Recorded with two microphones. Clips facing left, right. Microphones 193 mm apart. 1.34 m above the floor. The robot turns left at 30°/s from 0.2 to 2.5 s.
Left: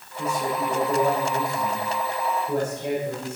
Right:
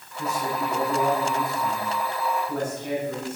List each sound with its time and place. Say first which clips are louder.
0.2 s a man speaking: left 2 dB; 145° left, 6 m; by 3.4 s 75° left, 6 m